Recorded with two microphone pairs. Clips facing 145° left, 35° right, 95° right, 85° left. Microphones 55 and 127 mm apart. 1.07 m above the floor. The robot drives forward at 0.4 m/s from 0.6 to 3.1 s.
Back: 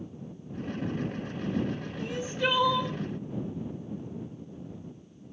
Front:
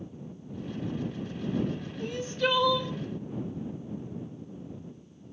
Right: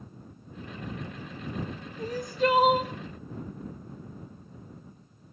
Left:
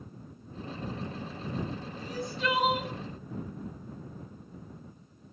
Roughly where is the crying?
Behind right.